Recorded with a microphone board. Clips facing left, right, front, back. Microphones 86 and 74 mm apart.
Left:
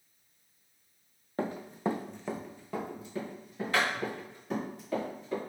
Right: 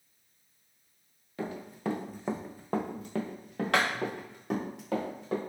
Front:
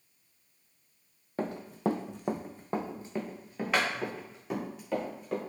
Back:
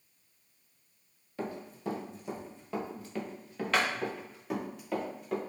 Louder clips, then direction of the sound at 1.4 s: Left 3 dB, front 6 dB; 40° left.